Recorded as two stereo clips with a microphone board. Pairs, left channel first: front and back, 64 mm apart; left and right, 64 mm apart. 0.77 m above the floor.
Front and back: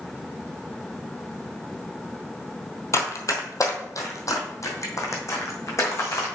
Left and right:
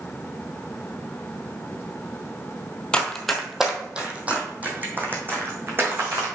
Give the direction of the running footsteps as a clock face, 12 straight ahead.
11 o'clock.